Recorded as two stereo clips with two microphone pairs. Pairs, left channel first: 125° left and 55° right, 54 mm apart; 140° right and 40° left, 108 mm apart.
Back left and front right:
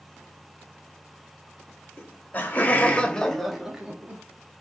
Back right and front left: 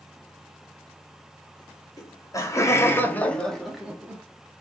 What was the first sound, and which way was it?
Laughter, 170° left.